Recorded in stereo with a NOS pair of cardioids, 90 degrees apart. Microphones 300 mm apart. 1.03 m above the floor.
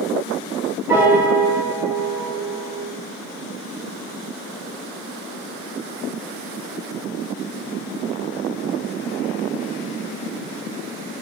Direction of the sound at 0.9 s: 10° right.